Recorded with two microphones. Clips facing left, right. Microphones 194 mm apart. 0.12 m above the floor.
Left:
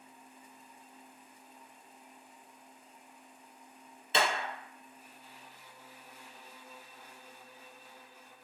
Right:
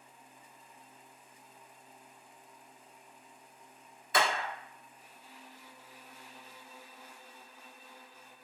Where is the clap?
25° left (ahead or behind), 0.9 m.